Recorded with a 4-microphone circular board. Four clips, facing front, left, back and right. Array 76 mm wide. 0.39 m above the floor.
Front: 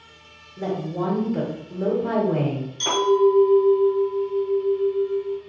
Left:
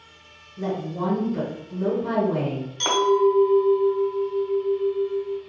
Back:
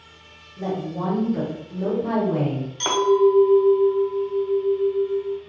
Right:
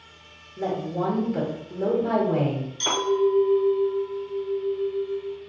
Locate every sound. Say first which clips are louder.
0.6 s a woman speaking: right 1 dB, front 1 dB; 50° right, 1.1 m
2.8 s a clink: left 4 dB, back 1 dB; 145° left, 0.9 m